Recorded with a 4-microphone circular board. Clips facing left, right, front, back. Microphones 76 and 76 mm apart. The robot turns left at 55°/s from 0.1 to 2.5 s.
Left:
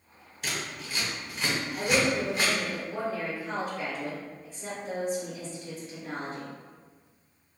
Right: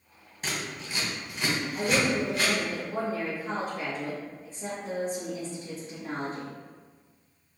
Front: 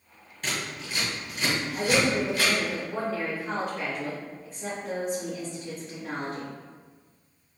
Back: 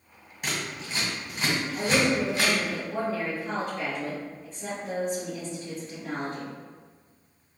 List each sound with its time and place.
0.4 s scissors: 105° right, 1.5 m; by 2.5 s 140° left, 1.5 m
1.8 s a woman speaking: 40° right, 1.3 m; by 6.5 s 85° right, 1.3 m